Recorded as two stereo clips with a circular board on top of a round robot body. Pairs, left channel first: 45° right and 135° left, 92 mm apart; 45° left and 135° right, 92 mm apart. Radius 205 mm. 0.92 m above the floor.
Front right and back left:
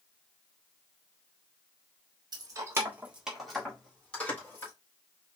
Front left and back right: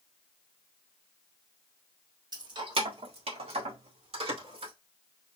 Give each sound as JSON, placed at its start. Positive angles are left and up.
{"t": 2.3, "sound": "keys jangling", "azimuth_deg": 180, "distance_m": 1.4}